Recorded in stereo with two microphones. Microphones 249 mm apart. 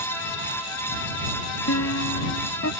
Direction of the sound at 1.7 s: 75° left (ahead or behind).